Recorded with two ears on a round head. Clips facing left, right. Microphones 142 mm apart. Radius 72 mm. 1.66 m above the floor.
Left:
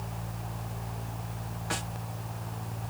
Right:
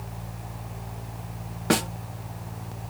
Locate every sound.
1.7 s a snare drum: 70° right (ahead or behind)